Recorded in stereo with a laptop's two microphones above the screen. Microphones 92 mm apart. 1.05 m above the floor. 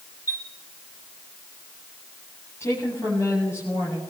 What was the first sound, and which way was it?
A chime, 40° left (ahead or behind).